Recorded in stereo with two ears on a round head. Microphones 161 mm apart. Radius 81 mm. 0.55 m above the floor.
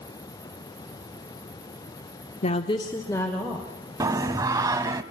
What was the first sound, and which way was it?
A woman speaking, 35° left (ahead or behind).